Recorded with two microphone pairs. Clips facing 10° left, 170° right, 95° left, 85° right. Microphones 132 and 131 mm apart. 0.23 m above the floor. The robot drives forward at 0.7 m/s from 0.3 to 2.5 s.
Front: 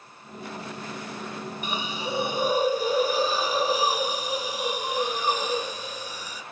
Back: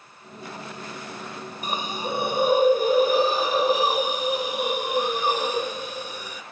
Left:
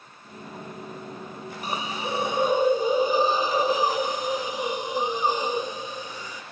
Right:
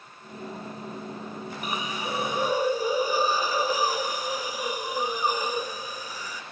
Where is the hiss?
150° left, 0.9 m; by 6.4 s 160° left, 1.4 m.